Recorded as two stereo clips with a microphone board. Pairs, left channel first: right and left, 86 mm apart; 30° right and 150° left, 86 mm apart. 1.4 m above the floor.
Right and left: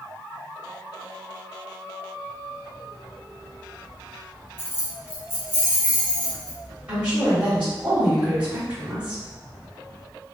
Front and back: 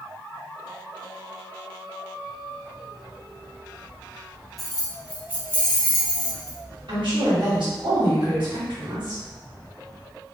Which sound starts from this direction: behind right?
Keys jangling, at 4.6 s.